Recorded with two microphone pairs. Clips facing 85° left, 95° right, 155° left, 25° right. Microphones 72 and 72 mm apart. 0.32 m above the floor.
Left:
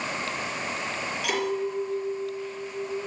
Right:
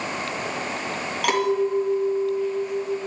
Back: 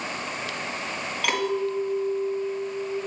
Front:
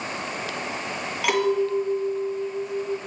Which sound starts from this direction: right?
A clink, at 1.2 s.